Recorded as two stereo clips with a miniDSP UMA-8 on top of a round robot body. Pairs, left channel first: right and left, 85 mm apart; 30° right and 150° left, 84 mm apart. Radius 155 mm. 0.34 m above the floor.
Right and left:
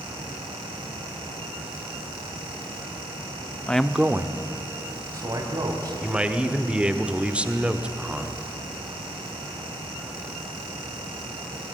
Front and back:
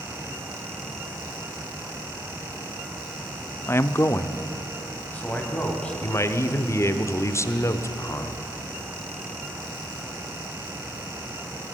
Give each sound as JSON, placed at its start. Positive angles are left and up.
{"t": 3.7, "sound": "a man speaking", "azimuth_deg": -35, "distance_m": 0.9}
{"t": 6.0, "sound": "a man speaking", "azimuth_deg": 15, "distance_m": 1.3}